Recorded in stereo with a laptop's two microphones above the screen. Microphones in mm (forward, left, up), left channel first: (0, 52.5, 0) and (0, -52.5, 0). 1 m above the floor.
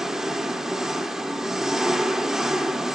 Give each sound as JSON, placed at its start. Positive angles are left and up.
{"t": 0.0, "sound": "an engine running", "side_deg": -5, "distance_m": 0.8}